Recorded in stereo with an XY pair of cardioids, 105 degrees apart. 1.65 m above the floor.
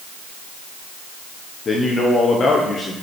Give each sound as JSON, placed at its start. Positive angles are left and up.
{"t": 1.6, "sound": "a man speaking", "azimuth_deg": 40, "distance_m": 1.1}